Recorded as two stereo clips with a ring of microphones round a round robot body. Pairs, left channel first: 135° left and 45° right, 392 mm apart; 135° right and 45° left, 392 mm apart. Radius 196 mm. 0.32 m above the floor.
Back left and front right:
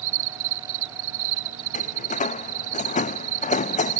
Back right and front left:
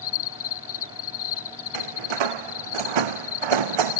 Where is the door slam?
65° left.